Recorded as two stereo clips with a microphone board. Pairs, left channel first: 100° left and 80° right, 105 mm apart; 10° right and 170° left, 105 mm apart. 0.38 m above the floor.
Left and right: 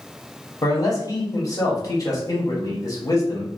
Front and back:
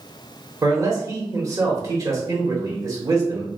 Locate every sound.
0.6 s a man speaking: 130° left, 1.2 m